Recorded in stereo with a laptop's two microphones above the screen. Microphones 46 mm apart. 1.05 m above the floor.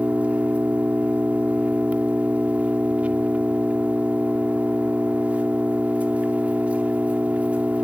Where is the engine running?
30° right (ahead or behind), 2.5 m.